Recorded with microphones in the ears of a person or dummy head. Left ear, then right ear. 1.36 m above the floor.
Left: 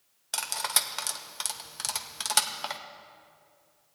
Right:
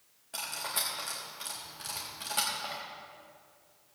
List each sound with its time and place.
0.3 s cutlery clinking: 50° left (ahead or behind), 0.7 m